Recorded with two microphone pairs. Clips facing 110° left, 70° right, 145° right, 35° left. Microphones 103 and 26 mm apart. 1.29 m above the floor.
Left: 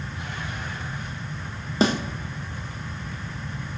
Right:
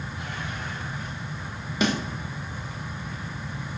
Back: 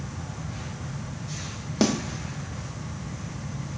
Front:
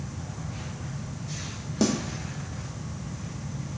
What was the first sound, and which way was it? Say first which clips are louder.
A snare drum: left 3 dB, back 2 dB; 165° left.